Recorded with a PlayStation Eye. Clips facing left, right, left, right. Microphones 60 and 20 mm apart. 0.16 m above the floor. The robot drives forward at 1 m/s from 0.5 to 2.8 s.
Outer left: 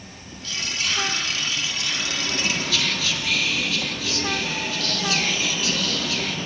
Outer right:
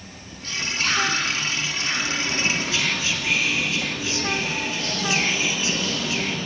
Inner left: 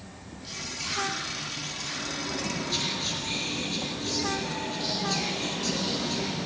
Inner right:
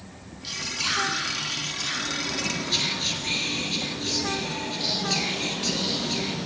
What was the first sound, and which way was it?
Whispering, 45° right (ahead or behind).